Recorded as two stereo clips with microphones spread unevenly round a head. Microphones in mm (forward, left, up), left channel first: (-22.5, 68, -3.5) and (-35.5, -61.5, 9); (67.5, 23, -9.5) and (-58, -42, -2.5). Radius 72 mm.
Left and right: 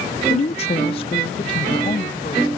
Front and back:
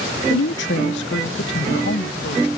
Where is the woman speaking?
35° left; by 2.5 s 25° left.